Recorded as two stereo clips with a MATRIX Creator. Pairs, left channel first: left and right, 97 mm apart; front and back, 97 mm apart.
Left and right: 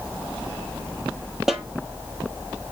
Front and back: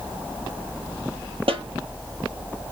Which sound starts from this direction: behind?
A snare drum, at 1.5 s.